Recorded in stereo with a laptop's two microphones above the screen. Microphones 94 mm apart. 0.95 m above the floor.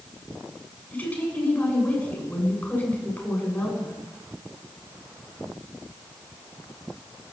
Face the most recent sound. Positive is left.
turn(degrees=20)  # may be behind; listen again after turning